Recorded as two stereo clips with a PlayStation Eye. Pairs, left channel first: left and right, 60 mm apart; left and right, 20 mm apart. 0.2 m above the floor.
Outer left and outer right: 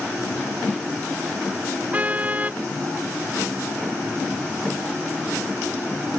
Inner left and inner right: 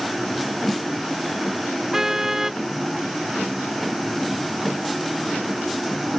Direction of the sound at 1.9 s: 25° right (ahead or behind).